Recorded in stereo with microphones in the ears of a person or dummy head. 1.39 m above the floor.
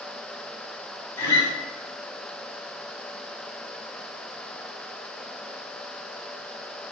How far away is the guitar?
About 1.3 m.